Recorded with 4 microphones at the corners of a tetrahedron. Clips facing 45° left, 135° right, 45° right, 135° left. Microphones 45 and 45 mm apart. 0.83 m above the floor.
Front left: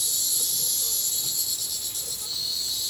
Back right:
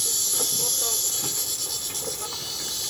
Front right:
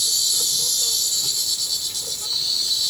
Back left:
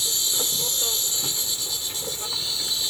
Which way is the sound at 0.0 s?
165° right.